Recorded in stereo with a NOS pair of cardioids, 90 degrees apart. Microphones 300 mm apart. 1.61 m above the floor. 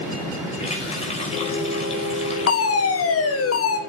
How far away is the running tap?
About 5 m.